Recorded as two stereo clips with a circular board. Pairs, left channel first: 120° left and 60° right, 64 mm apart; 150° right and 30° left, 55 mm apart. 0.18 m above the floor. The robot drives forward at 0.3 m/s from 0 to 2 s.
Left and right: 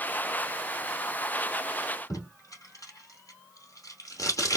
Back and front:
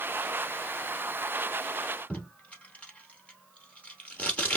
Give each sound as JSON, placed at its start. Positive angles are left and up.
{"t": 2.1, "sound": "tape being pulled", "azimuth_deg": 150, "distance_m": 2.0}